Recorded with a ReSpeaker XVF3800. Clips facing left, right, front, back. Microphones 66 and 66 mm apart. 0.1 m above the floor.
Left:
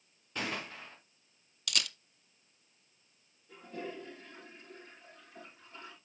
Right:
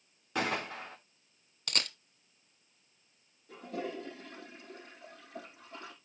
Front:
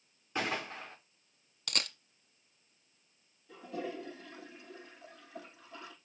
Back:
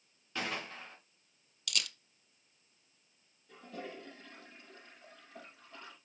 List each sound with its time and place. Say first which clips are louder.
0.3 s a gunshot: right 5 dB, front 3 dB; 70° right, 3 m
1.7 s a camera shutter: even, front 1 dB; 45° right, 0.6 m
3.5 s a toilet flushing: right 4 dB, front 5 dB; 85° right, 5 m